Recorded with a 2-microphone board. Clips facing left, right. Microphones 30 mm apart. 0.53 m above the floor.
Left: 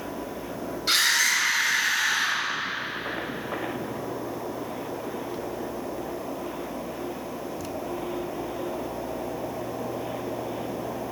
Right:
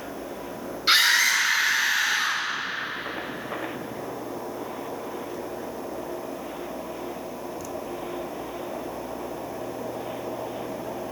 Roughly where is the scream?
Right.